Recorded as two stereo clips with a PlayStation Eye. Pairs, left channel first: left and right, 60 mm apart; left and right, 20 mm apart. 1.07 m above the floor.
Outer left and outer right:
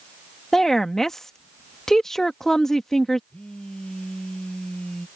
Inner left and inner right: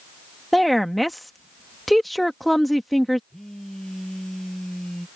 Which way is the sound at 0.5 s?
10° left (ahead or behind).